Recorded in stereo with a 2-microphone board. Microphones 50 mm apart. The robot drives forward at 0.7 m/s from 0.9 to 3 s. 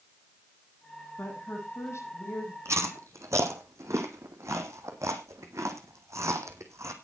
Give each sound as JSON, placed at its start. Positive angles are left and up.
{"t": 1.2, "sound": "a woman speaking", "side_deg": 60, "distance_m": 8.0}
{"t": 2.6, "sound": "chewing", "side_deg": -70, "distance_m": 1.9}